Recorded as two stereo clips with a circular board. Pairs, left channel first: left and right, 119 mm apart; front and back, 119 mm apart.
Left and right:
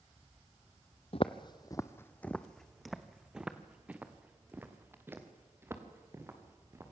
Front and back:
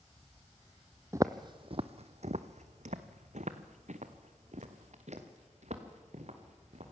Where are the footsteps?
115° left, 0.7 m; by 6.9 s 155° right, 3.5 m.